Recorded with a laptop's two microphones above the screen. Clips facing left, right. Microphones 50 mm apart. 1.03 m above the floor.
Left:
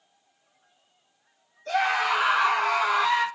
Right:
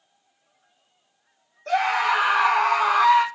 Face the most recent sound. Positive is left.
turn(degrees=-65)  # may be behind; listen again after turning